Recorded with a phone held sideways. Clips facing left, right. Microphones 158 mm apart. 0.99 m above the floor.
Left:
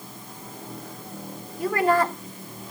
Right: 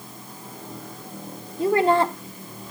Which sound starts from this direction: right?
A woman speaking, at 1.6 s.